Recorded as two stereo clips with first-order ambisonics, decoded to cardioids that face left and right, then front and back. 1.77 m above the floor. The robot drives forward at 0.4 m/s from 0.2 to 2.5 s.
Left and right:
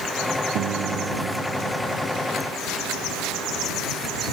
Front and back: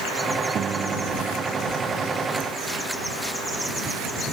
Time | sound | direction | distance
0.6 | a piano | 125° right | ?